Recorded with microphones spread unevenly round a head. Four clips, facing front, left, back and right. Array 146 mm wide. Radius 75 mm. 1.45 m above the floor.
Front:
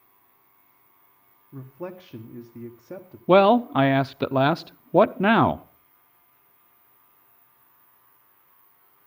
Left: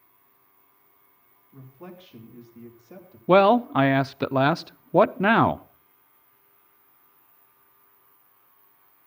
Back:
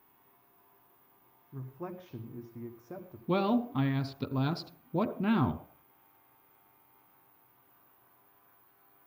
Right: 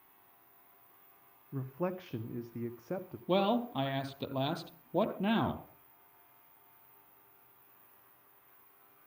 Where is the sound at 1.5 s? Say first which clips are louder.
Right 8 dB, front 6 dB; 50° right, 1.1 m.